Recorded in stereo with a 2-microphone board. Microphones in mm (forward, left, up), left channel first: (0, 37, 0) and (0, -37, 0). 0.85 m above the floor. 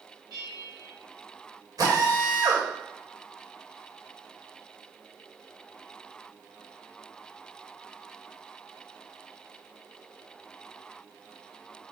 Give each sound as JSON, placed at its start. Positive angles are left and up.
{"t": 0.3, "sound": "a bell", "side_deg": -70, "distance_m": 3.5}
{"t": 1.8, "sound": "a drill", "side_deg": -55, "distance_m": 2.5}